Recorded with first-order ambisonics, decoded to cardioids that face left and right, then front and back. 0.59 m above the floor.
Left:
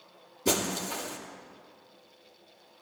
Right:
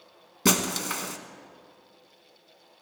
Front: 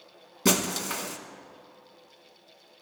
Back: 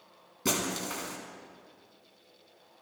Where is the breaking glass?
70° right, 1.3 m.